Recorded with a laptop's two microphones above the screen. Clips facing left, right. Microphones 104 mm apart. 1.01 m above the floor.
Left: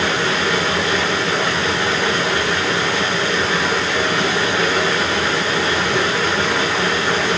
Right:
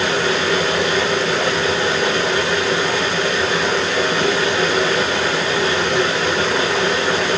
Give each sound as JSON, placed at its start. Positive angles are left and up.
{"t": 0.0, "sound": "running water", "side_deg": 30, "distance_m": 9.5}